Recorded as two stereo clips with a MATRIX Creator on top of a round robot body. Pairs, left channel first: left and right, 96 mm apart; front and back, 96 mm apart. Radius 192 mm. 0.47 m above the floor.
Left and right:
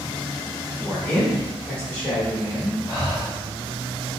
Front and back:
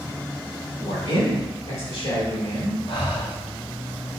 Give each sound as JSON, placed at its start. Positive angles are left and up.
{"t": 0.8, "sound": "a man speaking", "azimuth_deg": 15, "distance_m": 1.8}
{"t": 2.9, "sound": "breathing", "azimuth_deg": 0, "distance_m": 1.8}